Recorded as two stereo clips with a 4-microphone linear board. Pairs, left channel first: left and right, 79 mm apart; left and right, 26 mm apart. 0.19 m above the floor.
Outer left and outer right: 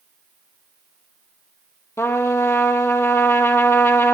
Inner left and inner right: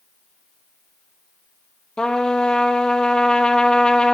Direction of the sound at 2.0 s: 35° left (ahead or behind).